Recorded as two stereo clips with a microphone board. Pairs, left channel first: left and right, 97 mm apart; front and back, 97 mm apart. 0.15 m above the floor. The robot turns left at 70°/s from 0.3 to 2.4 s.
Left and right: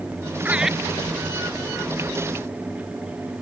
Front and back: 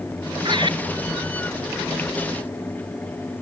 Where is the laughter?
160° right; by 0.8 s straight behind.